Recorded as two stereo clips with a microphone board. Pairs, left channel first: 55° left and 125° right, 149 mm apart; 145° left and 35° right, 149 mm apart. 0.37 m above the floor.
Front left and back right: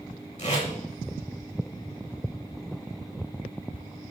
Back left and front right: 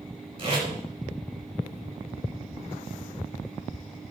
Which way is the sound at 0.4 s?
20° left.